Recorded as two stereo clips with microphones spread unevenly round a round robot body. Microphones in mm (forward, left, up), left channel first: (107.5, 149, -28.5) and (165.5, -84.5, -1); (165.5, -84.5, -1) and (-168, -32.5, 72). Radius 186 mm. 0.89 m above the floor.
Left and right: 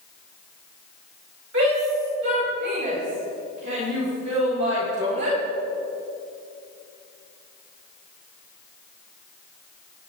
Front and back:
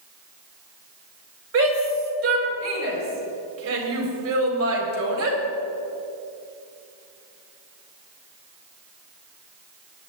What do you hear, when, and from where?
1.5 s a shout: 140° right, 4.5 m